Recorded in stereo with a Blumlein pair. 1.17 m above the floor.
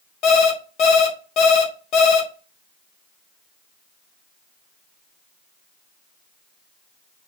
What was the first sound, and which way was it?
An alarm clock, 40° left.